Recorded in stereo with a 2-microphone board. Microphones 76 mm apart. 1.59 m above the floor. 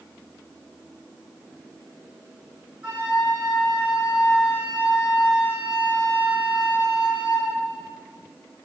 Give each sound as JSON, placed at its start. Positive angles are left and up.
{"t": 2.8, "sound": "a flute", "side_deg": -10, "distance_m": 1.7}